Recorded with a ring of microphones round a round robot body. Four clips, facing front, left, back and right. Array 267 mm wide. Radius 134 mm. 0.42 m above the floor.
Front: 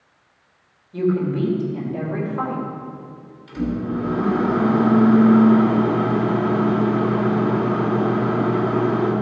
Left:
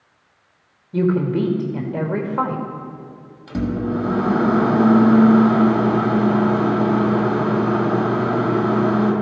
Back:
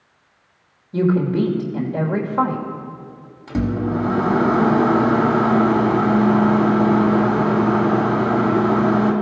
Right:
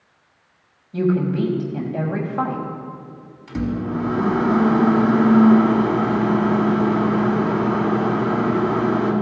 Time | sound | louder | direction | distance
0.9 | a woman speaking | left 1 dB, back 3 dB | 135° left | 1.5 m
3.5 | a microwave | left 2 dB, back 3 dB | 160° left | 1.8 m